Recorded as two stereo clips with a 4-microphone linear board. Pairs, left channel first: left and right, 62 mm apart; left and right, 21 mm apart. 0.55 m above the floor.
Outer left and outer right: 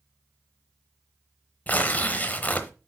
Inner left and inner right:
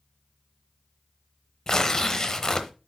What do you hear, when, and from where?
1.7 s tearing paper: 30° left (ahead or behind), 0.9 m